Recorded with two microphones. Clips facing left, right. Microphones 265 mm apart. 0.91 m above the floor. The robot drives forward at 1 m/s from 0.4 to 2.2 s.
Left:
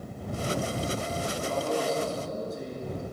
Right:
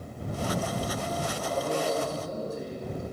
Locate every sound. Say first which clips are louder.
1.4 s a man speaking: left 1 dB; 5° right (ahead or behind), 9 m